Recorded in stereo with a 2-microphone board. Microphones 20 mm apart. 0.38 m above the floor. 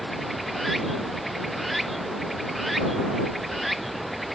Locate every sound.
0.0 s running water: centre (ahead or behind)